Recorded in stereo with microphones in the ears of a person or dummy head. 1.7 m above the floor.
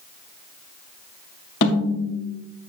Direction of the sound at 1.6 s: 55° left (ahead or behind).